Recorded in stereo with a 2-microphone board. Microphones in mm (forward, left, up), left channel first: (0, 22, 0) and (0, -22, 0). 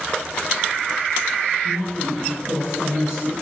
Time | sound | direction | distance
1.6 | a woman speaking | 40° right (ahead or behind) | 3 m